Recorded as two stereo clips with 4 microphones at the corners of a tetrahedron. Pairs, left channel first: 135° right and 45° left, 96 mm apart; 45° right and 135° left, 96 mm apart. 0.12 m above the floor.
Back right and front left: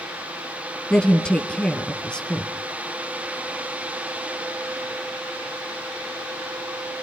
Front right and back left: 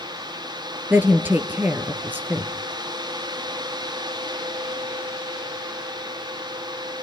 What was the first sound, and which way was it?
A woman speaking, 165° left.